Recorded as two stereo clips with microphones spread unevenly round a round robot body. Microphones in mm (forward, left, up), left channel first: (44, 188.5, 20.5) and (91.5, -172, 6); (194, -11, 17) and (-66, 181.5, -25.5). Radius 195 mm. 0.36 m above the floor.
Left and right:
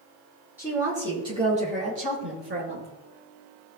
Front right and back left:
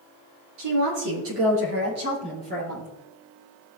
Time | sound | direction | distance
0.6 | a woman speaking | 170° right | 5.5 m